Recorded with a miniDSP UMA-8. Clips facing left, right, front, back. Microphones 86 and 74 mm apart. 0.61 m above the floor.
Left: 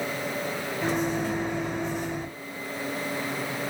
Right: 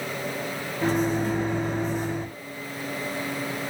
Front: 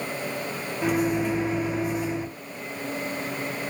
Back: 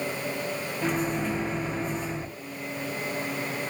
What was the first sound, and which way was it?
A microwave, 75° right.